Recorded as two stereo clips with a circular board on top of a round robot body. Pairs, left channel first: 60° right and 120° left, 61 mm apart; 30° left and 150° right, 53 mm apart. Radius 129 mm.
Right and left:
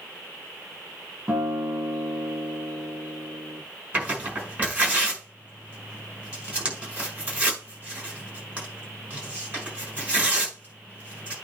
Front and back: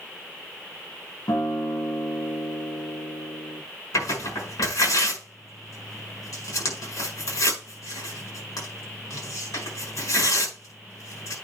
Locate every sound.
1.3 s a guitar: 50° left, 2.5 m
3.9 s tearing paper: 50° left, 5.5 m